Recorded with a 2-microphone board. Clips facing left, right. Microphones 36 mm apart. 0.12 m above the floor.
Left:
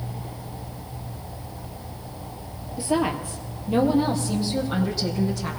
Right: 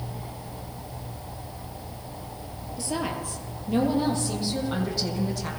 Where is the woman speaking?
25° left (ahead or behind), 2 m; by 5.5 s centre (ahead or behind), 5 m.